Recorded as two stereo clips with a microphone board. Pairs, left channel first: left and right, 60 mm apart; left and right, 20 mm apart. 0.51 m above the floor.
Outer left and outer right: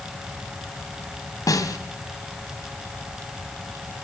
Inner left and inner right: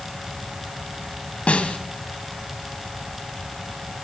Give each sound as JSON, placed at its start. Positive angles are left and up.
{"t": 1.5, "sound": "a snare drum", "side_deg": 80, "distance_m": 2.5}